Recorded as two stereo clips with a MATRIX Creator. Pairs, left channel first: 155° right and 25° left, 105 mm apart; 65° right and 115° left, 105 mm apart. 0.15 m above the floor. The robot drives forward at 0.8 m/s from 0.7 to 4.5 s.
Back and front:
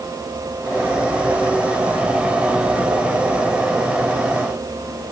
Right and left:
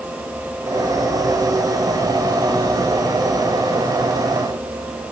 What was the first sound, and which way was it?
Only background noise.